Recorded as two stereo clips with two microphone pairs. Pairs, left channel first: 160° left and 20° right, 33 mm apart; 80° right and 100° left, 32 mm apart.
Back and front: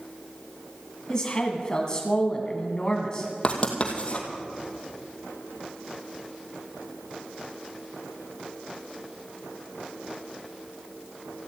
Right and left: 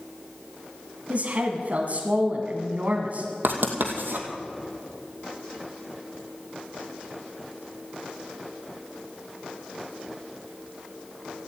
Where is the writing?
100° left, 2.5 m.